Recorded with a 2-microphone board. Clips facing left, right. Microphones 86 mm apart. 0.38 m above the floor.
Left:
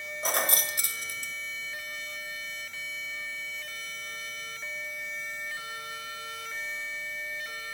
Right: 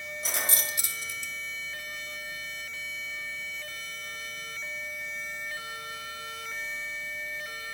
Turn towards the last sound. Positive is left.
turn(degrees=45)  # may be behind; listen again after turning